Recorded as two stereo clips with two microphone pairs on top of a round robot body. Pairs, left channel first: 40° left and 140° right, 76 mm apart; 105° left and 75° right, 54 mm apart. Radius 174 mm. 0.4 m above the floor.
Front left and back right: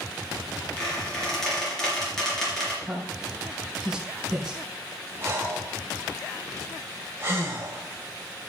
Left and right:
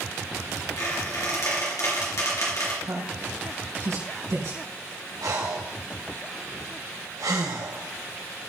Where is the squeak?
125° left, 4 m.